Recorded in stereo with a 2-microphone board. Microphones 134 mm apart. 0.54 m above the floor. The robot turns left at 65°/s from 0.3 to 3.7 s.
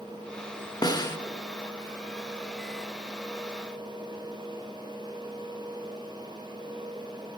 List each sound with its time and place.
0.8 s a snare drum: 30° left (ahead or behind), 1.1 m